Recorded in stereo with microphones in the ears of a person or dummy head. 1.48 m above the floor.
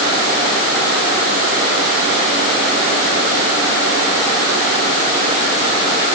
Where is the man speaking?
I don't hear a man speaking.